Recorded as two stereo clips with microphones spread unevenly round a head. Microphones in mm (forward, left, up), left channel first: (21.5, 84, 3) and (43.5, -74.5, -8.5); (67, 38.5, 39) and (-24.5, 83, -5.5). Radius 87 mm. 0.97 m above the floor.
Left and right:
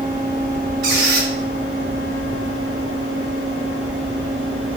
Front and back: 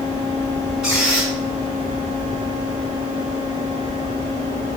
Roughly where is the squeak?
Behind right.